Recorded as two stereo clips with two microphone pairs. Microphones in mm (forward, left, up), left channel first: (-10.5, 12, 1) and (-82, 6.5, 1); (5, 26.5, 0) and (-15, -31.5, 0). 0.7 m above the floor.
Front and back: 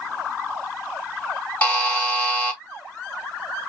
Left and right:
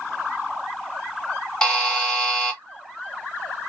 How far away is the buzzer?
About 0.9 m.